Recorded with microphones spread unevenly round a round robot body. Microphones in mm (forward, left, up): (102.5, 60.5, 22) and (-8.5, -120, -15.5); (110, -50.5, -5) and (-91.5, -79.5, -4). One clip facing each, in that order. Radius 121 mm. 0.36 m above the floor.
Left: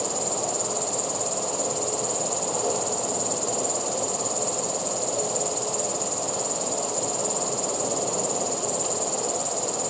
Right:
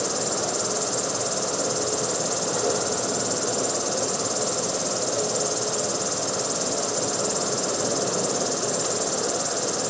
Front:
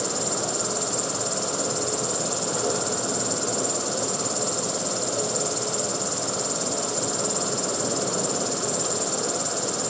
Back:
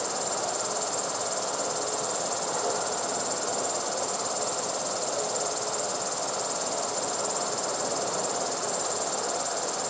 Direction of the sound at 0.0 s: 50° right.